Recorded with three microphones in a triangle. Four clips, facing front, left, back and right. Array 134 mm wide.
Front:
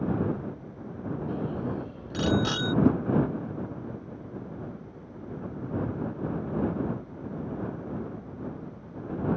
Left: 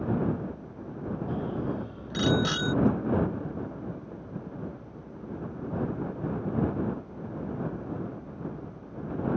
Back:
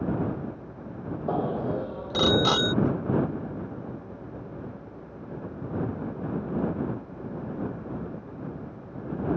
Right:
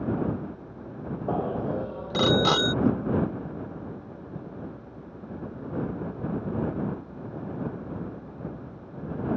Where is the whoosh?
5° left.